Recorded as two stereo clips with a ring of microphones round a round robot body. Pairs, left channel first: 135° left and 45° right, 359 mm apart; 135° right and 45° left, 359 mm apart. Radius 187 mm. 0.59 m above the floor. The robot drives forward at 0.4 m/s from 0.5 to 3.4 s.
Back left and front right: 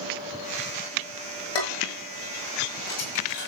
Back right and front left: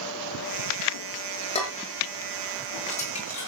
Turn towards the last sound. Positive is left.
turn(degrees=155)